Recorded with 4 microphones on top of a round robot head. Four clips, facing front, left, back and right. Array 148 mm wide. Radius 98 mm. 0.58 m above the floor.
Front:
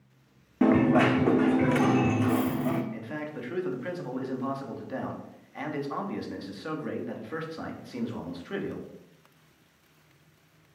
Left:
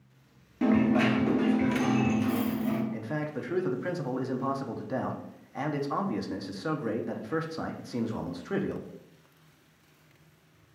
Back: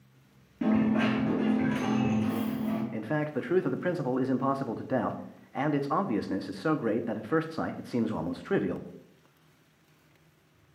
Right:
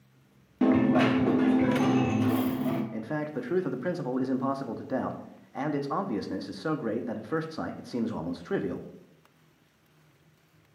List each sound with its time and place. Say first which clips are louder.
0.6 s a dropped coin: right 2 dB, front 5 dB; 20° right, 0.6 m
2.9 s a man speaking: right 1 dB, back 5 dB; 155° right, 0.8 m